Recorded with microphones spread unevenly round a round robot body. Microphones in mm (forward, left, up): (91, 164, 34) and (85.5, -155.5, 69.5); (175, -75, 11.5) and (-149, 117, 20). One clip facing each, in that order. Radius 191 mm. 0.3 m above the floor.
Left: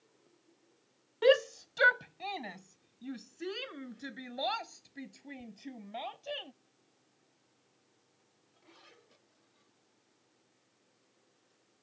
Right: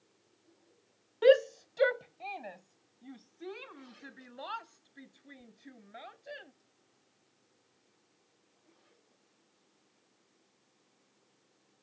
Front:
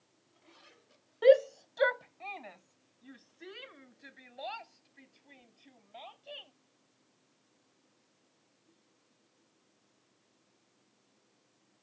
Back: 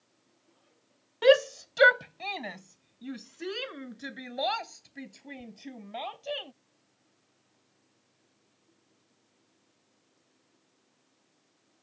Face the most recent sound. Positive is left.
turn(degrees=135)